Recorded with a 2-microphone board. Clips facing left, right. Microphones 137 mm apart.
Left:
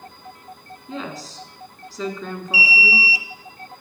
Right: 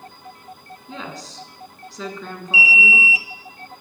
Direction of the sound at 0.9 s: Centre (ahead or behind).